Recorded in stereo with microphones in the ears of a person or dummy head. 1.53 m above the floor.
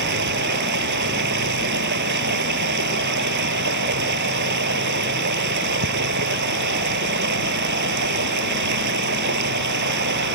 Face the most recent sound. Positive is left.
turn(degrees=-60)  # may be behind; listen again after turning